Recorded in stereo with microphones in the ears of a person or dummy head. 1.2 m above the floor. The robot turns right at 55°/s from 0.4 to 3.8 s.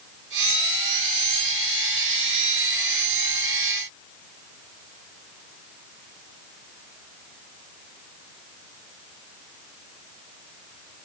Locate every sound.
Only background noise.